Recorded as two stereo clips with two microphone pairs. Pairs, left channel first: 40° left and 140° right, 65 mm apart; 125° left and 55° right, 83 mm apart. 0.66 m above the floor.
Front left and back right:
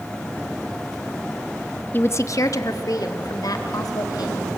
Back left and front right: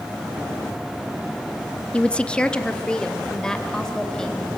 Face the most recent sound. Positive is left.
turn(degrees=40)